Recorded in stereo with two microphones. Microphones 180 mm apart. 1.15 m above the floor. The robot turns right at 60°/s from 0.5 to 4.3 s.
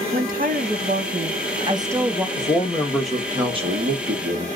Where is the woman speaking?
105° right, 0.8 m; by 2.3 s straight ahead, 0.8 m.